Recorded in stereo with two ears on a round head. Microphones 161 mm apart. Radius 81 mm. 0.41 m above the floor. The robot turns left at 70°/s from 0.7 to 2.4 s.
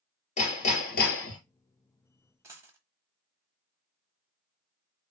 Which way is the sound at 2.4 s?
15° right (ahead or behind).